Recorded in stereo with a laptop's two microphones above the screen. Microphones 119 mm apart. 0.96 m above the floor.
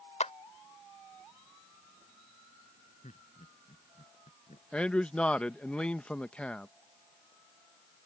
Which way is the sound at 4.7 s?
10° left (ahead or behind).